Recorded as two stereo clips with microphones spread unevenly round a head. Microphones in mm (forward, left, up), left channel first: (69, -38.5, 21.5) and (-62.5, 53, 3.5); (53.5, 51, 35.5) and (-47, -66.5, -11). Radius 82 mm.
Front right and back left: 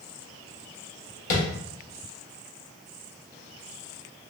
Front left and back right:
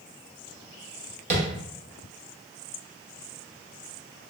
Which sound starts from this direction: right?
Tapping, at 1.3 s.